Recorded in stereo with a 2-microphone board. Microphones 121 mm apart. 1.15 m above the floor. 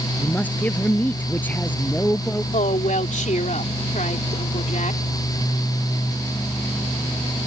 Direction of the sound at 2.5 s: 80° left.